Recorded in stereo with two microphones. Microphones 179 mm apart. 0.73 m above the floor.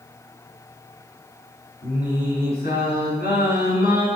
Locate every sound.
1.8 s singing: 60° left (ahead or behind), 5 m